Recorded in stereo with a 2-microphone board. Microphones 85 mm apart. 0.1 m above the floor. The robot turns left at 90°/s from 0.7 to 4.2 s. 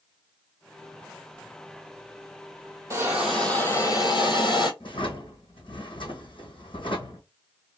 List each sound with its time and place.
2.9 s a hiss: 145° right, 1.3 m; by 4.7 s 100° left, 1.3 m
4.8 s a drawer: 80° left, 1.8 m